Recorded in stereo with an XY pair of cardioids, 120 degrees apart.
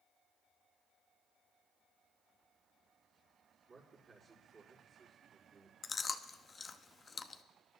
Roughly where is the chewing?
Ahead left.